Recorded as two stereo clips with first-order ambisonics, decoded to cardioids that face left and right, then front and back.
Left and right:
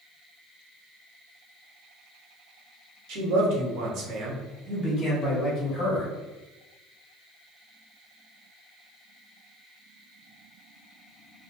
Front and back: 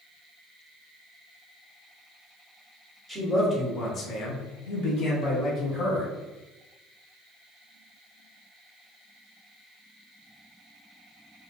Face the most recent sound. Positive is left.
turn(degrees=45)